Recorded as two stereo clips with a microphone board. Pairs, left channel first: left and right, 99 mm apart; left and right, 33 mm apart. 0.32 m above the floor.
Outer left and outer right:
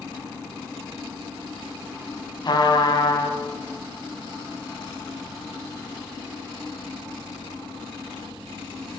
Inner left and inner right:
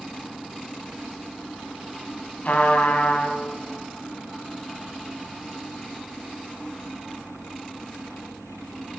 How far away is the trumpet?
About 1.8 m.